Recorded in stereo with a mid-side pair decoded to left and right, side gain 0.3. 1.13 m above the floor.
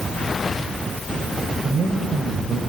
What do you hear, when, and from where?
1.6 s a man speaking: 50° right, 5 m